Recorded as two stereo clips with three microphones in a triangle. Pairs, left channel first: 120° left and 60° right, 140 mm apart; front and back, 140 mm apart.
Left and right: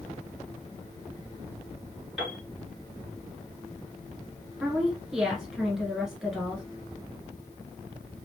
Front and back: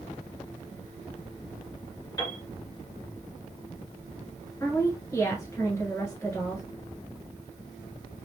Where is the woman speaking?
25° left, 1.1 m.